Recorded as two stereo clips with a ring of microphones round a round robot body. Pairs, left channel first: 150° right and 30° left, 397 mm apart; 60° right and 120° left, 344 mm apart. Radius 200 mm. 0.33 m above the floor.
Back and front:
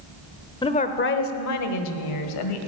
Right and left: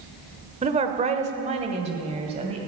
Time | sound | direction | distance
0.6 | a woman speaking | 155° left | 0.9 m